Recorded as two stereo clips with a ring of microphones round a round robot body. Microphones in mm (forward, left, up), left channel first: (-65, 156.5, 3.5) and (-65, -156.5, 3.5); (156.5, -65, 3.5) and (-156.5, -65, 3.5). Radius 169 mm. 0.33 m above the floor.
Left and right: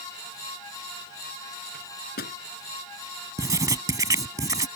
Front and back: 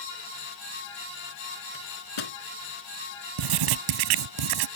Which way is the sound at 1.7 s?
25° left.